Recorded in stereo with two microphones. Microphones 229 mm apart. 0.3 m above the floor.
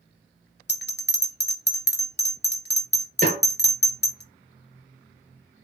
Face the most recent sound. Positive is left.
turn(degrees=-35)  # may be behind; listen again after turning